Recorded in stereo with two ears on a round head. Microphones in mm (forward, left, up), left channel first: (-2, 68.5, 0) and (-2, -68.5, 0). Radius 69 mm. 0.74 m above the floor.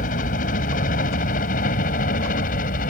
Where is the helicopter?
60° left (ahead or behind).